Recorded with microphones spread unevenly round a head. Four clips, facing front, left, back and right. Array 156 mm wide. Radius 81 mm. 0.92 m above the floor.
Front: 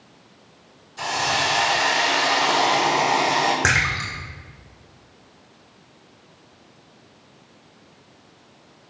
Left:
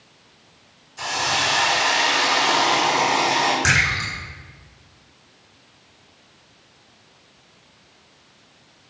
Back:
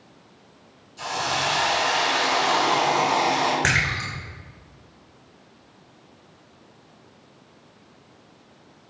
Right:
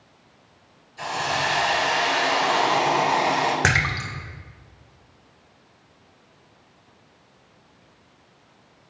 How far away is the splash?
About 1.7 m.